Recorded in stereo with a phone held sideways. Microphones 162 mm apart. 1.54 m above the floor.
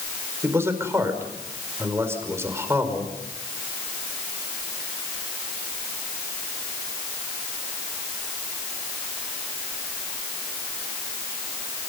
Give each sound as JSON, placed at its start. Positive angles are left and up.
{"t": 0.4, "sound": "a man speaking", "side_deg": -15, "distance_m": 5.5}